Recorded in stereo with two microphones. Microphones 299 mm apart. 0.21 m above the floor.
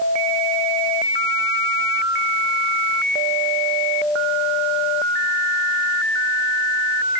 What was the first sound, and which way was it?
Only background noise.